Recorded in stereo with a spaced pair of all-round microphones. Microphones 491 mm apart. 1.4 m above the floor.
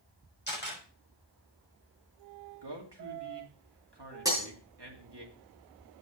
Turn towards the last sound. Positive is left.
turn(degrees=-5)  # may be behind; listen again after turning